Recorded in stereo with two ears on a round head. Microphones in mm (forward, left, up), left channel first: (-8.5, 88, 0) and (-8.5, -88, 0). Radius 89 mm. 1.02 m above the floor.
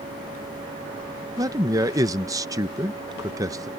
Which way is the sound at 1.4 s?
20° right (ahead or behind).